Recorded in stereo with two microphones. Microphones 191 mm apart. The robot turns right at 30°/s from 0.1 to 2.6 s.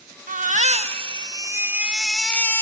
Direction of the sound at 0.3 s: 55° right.